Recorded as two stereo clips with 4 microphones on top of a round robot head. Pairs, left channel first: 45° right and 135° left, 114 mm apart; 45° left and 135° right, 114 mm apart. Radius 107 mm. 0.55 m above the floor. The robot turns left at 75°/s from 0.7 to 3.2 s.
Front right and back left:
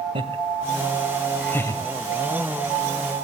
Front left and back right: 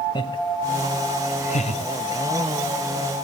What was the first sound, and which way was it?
Laughter, 95° left.